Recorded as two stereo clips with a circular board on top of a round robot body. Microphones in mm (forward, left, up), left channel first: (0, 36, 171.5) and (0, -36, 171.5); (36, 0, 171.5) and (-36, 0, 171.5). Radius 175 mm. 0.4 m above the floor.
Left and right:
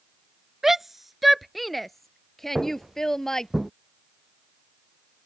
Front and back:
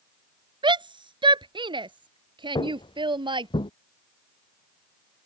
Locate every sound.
0.6 s a shout: 175° right; by 3.5 s 175° left
2.5 s footsteps: 5° right; by 3.7 s straight ahead